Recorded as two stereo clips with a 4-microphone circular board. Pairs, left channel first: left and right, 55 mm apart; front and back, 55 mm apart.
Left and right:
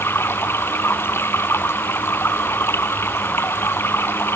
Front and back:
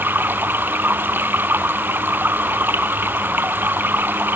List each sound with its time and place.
0.0 s running water: 130° left